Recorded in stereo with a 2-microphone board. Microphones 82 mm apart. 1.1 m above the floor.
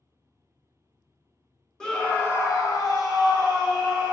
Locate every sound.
1.8 s a scream: 5° left (ahead or behind), 0.8 m; by 4.1 s 65° left (ahead or behind), 1.5 m